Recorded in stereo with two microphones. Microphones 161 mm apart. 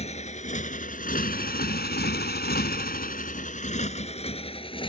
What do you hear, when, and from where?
0.0 s a motorcycle: 40° left (ahead or behind); by 4.9 s 30° left (ahead or behind)